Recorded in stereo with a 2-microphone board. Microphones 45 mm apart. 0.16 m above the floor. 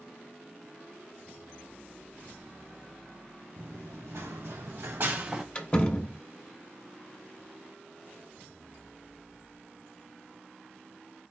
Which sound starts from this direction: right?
Running footsteps, at 3.5 s.